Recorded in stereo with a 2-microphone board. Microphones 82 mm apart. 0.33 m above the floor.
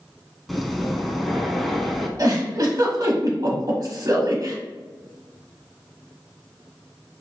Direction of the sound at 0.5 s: Centre (ahead or behind).